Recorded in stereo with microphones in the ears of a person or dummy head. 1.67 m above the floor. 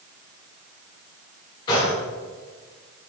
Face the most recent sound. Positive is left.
turn(degrees=25)  # may be behind; listen again after turning